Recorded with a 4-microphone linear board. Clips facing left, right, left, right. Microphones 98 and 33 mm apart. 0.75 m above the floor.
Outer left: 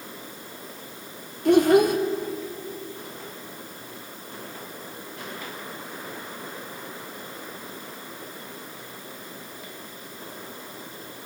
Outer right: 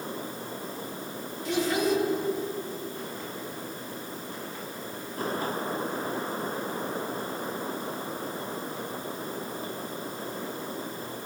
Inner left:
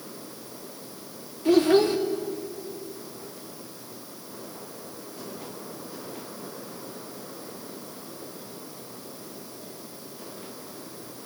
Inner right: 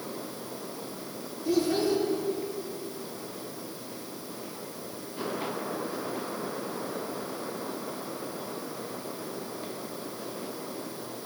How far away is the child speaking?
About 0.7 m.